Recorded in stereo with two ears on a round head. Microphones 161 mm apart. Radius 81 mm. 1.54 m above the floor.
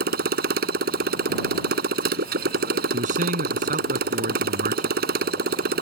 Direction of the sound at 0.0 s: 55° right (ahead or behind).